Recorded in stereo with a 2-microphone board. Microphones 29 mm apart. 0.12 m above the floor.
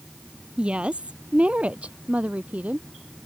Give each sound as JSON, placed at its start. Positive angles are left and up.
{"t": 0.6, "sound": "a woman speaking", "side_deg": -40}